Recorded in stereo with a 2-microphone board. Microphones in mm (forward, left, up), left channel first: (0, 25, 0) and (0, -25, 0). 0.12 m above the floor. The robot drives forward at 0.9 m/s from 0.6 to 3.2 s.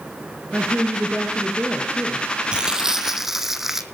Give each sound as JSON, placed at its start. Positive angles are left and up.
{"t": 0.5, "sound": "a woman speaking", "side_deg": -30, "distance_m": 1.9}
{"t": 2.5, "sound": "crumpling", "side_deg": -20, "distance_m": 0.5}